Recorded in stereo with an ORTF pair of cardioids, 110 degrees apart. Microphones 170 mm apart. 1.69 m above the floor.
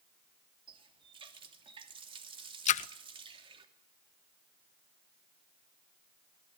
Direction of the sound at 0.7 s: 35° right.